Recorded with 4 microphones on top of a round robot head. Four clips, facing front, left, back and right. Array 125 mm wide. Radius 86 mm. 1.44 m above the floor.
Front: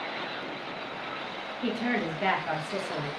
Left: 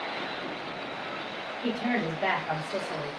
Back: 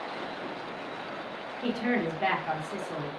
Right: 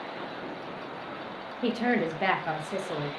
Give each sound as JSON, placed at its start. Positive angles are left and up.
{"t": 1.6, "sound": "a woman speaking", "azimuth_deg": -90, "distance_m": 0.8}